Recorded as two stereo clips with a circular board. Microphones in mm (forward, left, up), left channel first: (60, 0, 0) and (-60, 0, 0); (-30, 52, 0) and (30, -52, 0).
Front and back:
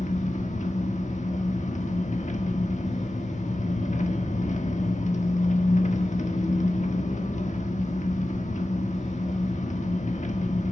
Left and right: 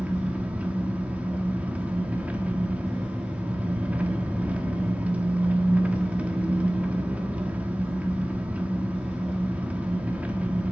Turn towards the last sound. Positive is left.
turn(degrees=20)